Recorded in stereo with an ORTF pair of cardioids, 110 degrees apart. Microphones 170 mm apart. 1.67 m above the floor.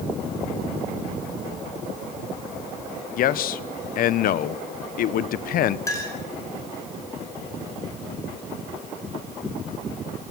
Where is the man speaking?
65° left, 1.1 m.